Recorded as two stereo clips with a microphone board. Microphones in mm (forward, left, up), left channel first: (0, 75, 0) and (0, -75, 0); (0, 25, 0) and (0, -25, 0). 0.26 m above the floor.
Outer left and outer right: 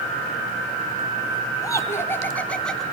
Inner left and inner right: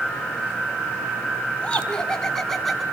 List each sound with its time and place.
1.6 s laughter: 20° left (ahead or behind), 2.5 m; by 2.8 s centre (ahead or behind), 2.5 m